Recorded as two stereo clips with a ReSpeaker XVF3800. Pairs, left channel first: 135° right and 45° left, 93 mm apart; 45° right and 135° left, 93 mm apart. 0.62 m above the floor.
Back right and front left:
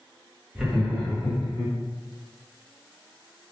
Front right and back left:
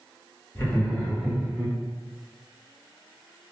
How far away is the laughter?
About 1.1 m.